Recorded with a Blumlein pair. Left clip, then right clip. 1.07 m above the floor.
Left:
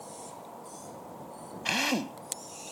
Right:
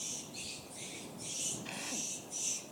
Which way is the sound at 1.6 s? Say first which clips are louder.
Left 12 dB; 35° left.